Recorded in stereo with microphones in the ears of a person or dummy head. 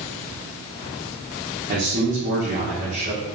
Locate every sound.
1.7 s a man speaking: 35° right (ahead or behind), 0.6 m